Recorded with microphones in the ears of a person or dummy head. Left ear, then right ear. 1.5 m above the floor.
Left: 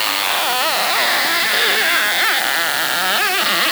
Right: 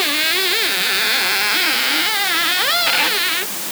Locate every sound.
Only background noise.